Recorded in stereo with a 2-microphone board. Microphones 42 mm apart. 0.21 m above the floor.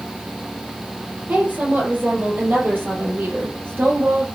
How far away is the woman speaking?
About 6.5 m.